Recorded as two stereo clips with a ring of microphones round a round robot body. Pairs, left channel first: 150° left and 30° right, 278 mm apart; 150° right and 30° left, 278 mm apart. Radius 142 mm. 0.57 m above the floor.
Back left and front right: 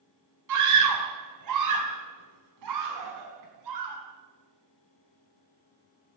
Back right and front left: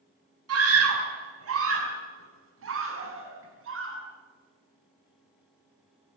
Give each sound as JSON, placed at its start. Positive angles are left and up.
{"t": 0.5, "sound": "a scream", "azimuth_deg": -10, "distance_m": 4.5}